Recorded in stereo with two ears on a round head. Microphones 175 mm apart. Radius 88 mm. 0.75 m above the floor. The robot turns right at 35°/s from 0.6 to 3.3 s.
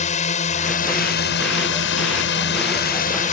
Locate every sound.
0.0 s a drone: 40° left; by 3.4 s 135° left